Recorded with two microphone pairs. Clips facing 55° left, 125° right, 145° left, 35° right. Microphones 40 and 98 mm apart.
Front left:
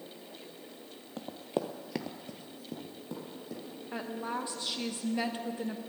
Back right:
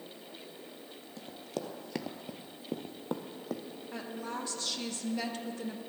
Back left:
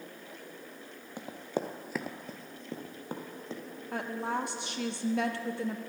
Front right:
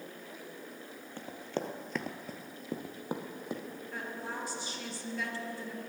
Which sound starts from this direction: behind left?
A woman speaking, at 3.9 s.